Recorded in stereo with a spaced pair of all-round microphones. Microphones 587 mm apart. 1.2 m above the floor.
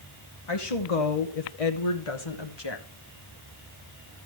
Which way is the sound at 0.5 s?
55° left (ahead or behind).